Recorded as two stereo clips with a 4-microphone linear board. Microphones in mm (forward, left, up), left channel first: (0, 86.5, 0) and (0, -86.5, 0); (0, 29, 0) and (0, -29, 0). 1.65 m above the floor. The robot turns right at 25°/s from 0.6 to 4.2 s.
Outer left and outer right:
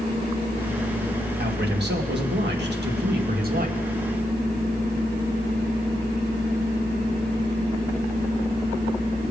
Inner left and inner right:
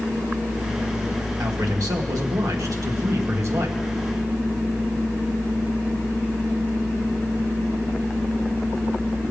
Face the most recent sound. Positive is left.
turn(degrees=-40)